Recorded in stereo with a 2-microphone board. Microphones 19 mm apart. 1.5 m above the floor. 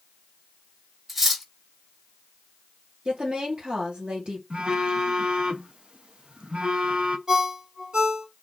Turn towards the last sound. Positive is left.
turn(degrees=-60)  # may be behind; listen again after turning